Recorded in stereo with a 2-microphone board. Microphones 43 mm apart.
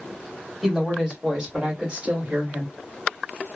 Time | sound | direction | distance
0.6 | a woman speaking | 5° left (ahead or behind) | 1.8 m